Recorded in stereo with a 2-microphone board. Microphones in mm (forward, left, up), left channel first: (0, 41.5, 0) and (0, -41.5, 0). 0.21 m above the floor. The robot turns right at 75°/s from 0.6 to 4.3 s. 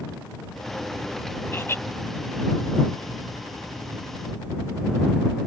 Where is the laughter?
25° left (ahead or behind); by 1.8 s 30° left (ahead or behind).